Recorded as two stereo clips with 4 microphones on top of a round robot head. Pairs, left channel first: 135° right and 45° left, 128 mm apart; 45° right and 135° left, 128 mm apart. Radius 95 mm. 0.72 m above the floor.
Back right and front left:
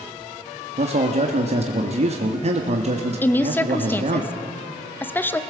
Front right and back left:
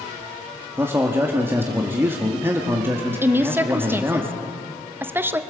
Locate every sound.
0.8 s a man speaking: 65° left, 1.5 m
3.2 s a woman speaking: straight behind, 1.0 m